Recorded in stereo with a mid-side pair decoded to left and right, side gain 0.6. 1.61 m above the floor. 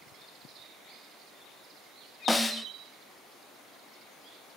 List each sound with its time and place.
2.3 s a snare drum: 5° left, 0.9 m